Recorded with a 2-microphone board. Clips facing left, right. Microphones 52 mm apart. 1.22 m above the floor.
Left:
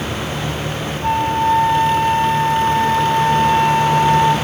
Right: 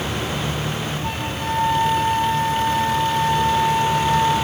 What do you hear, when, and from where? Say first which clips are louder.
1.0 s a flute: left 10 dB; 40° left (ahead or behind), 5.5 m